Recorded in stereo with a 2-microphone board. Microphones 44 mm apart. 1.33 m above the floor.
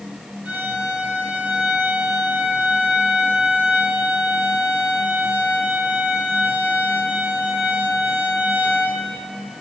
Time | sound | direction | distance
0.5 | a violin | 30° right (ahead or behind) | 2.5 m